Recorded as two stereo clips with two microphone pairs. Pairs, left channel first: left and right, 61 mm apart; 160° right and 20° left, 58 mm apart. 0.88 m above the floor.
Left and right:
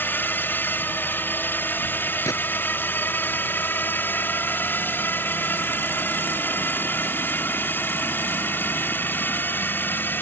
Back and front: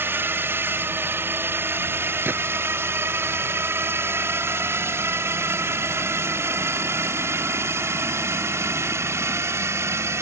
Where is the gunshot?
70° left.